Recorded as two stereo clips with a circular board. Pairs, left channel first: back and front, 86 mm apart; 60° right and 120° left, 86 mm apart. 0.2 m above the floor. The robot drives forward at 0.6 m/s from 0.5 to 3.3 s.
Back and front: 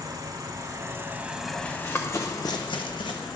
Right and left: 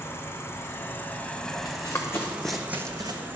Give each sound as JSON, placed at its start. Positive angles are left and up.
{"t": 0.0, "sound": "an insect", "azimuth_deg": -10, "distance_m": 0.8}
{"t": 1.6, "sound": "running footsteps", "azimuth_deg": -105, "distance_m": 1.4}